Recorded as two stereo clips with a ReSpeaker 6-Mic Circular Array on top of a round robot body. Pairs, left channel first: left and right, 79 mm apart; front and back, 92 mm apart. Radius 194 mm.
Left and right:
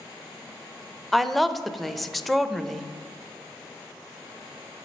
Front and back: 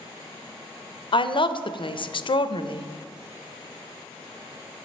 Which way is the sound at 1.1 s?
Straight ahead.